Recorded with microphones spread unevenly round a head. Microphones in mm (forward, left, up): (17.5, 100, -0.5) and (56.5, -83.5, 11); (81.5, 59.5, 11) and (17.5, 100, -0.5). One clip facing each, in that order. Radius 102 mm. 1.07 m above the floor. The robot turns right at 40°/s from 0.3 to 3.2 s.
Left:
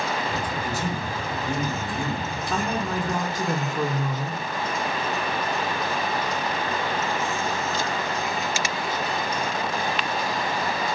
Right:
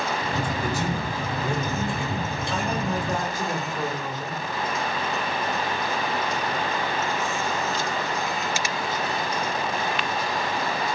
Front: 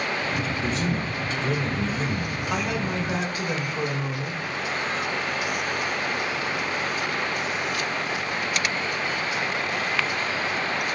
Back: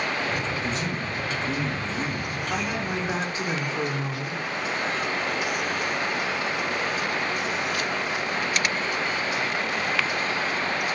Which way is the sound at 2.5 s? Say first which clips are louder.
Left 1 dB, front 2 dB; 55° left.